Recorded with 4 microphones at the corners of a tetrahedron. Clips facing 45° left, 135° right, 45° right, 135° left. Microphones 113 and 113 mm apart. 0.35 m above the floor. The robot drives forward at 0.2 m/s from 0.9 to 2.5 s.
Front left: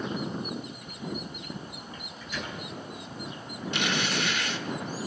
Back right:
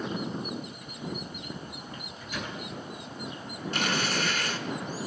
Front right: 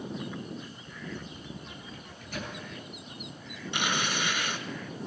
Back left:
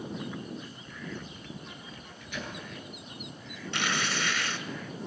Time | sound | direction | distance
1.9 | a microwave | 95° right | 3.5 m
3.7 | tearing paper | 110° right | 1.0 m